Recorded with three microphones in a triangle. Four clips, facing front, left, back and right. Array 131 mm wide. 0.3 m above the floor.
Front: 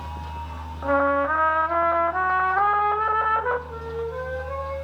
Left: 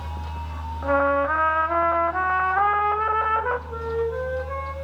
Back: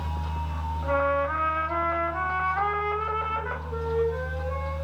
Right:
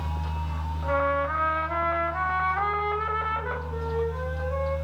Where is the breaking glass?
No breaking glass in this recording.